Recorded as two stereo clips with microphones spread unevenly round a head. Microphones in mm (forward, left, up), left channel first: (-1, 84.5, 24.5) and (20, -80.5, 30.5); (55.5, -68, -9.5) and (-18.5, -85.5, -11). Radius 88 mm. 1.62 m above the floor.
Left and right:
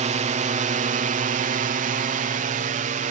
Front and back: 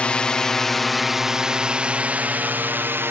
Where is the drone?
55° right; by 3.1 s 115° right.